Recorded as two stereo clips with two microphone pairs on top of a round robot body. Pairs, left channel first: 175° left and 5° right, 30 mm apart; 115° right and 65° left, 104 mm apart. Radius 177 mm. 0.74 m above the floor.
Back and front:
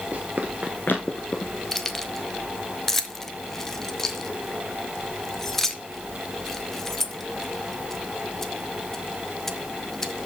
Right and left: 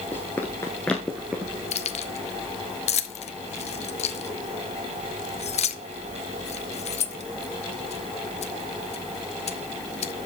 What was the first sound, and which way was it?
Running footsteps, 55° right.